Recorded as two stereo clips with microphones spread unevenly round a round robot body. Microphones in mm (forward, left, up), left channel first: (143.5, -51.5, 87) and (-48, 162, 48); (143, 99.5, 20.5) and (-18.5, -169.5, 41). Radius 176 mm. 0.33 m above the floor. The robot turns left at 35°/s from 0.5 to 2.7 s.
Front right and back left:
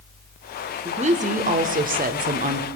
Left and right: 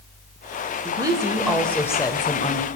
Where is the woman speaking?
170° left, 1.1 m; by 2.7 s 105° left, 1.1 m.